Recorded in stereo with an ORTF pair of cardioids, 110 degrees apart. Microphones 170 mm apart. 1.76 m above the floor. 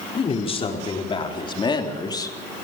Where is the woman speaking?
35° left, 5 m; by 2.4 s 20° left, 3 m.